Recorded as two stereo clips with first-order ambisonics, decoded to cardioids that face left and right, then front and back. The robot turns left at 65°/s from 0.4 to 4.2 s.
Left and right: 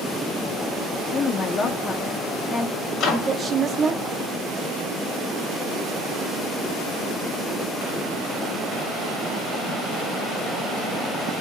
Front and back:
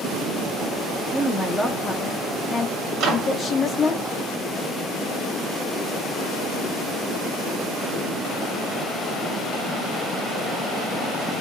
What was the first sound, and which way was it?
A woman speaking, 95° left.